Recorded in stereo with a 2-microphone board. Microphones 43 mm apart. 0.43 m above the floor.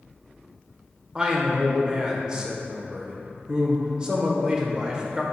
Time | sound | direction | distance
1.1 | a man speaking | 20° right (ahead or behind) | 1.2 m